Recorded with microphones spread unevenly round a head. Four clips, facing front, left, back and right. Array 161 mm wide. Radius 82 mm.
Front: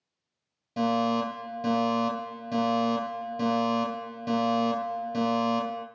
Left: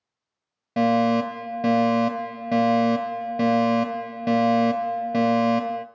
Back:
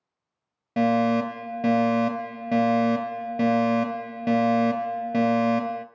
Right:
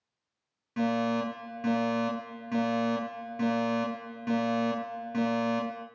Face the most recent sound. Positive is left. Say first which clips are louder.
# left 8 dB, back 4 dB
turn(degrees=135)